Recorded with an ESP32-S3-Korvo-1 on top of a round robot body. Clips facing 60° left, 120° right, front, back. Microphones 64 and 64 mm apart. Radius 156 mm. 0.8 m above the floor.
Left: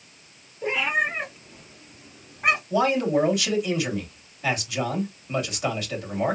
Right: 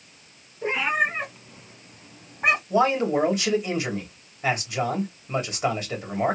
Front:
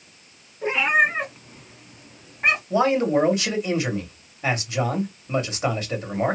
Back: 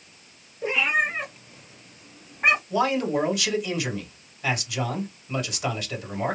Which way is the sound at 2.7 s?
60° right.